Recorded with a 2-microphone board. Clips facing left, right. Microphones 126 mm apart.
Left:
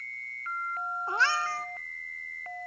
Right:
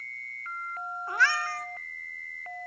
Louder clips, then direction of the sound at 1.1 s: Right 1 dB; 25° left (ahead or behind).